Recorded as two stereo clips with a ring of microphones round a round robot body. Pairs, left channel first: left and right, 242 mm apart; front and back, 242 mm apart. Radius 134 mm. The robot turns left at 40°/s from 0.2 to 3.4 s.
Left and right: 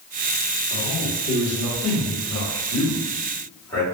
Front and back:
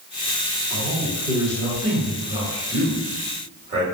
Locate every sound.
0.7 s a man speaking: 95° right, 1.7 m; by 3.9 s 160° left, 1.7 m